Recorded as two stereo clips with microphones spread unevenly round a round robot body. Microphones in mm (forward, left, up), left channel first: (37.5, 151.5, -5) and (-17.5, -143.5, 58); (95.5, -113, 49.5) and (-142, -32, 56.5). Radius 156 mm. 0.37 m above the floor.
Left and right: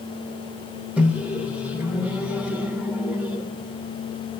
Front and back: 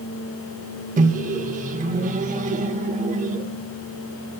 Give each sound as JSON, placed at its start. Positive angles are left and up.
{"t": 1.0, "sound": "a microwave", "azimuth_deg": 155, "distance_m": 0.6}